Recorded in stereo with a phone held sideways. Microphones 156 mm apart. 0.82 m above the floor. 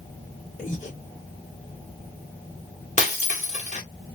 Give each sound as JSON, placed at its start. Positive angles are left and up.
{"t": 0.6, "sound": "breathing", "side_deg": 50, "distance_m": 2.5}
{"t": 3.0, "sound": "breaking glass", "side_deg": 50, "distance_m": 1.4}